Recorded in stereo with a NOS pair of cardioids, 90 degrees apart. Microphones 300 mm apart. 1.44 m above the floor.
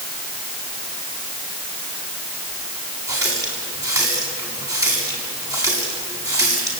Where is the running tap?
10° right, 7 m.